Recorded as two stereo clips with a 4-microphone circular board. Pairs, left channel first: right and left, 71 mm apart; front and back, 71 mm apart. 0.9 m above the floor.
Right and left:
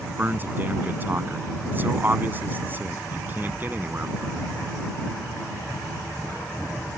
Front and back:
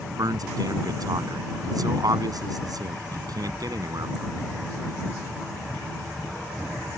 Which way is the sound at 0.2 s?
150° left.